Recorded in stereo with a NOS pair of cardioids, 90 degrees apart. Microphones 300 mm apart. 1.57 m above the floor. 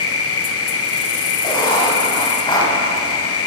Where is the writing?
15° left, 3.5 m.